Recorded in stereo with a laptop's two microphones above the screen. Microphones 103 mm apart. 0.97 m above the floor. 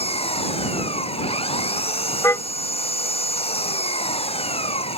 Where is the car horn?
30° left (ahead or behind).